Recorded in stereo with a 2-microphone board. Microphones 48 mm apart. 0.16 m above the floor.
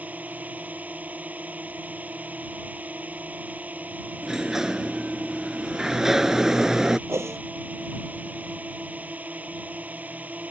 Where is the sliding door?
10° right (ahead or behind).